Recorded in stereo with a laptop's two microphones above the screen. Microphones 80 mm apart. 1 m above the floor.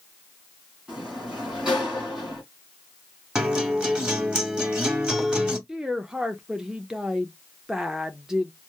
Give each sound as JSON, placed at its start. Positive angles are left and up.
{"t": 0.9, "sound": "a sliding door", "side_deg": -10, "distance_m": 2.0}
{"t": 3.4, "sound": "a guitar", "side_deg": -10, "distance_m": 1.0}
{"t": 5.7, "sound": "a woman speaking", "side_deg": -5, "distance_m": 0.5}